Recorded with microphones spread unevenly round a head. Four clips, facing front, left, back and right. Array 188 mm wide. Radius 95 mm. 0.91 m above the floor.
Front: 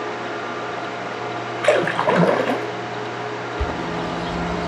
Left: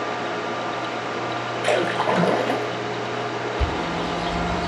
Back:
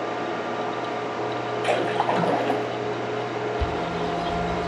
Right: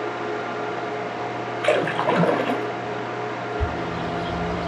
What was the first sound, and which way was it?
A splash, 15° right.